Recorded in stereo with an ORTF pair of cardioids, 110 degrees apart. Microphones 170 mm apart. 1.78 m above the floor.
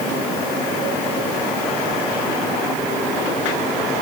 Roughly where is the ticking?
No ticking in this recording.